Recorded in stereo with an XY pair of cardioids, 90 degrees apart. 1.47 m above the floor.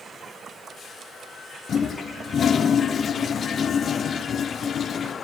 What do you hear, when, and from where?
1.7 s a toilet flushing: 55° left, 0.5 m